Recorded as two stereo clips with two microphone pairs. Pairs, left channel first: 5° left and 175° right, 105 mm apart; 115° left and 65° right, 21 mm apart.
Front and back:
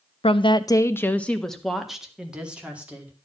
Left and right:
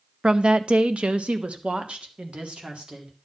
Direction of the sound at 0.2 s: 20° right.